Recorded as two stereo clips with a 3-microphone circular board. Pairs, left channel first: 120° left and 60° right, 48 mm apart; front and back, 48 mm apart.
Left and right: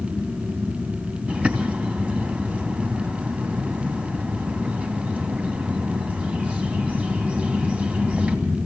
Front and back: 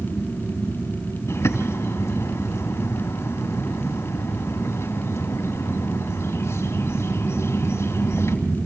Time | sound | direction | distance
1.3 | a bird | 5° left | 2.5 m